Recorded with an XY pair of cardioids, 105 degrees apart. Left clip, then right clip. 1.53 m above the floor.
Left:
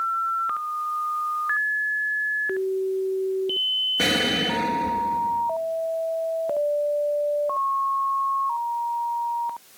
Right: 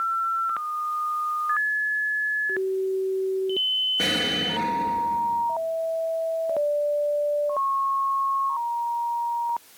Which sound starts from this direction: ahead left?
An explosion, at 4.0 s.